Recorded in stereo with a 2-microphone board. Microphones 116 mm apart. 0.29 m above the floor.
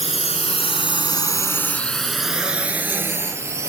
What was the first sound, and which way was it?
A drone, 70° left (ahead or behind).